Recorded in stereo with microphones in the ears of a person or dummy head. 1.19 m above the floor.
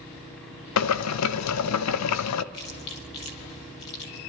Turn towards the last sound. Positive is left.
turn(degrees=35)  # may be behind; listen again after turning